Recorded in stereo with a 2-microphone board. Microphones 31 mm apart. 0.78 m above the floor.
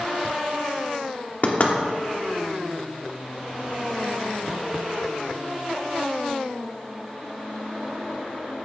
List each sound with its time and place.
1.4 s knocking: 55° left (ahead or behind), 1.1 m